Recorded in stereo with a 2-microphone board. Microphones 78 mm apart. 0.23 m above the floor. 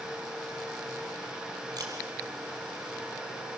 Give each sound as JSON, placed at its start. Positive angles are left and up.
{"t": 1.8, "sound": "a camera shutter", "side_deg": -60, "distance_m": 4.5}